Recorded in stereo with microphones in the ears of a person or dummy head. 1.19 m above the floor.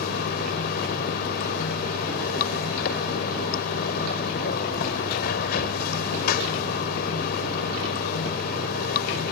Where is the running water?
55° left (ahead or behind).